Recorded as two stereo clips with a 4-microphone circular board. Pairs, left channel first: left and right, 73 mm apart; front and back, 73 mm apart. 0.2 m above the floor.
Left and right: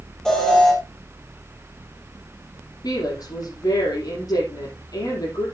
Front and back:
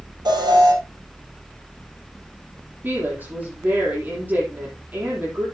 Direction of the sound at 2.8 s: 120° left.